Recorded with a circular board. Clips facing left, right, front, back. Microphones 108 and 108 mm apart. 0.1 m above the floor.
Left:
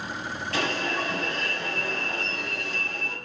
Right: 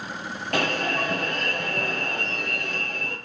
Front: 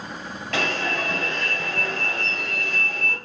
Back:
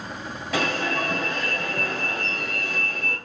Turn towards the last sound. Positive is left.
turn(degrees=-100)